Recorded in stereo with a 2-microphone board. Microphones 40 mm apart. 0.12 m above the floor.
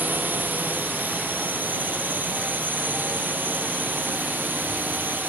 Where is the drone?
55° right (ahead or behind); by 5.3 s 60° right (ahead or behind).